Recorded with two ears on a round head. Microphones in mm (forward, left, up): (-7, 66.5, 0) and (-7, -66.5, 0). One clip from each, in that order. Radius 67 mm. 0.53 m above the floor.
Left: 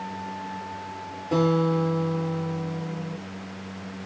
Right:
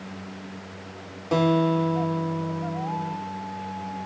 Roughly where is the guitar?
Right.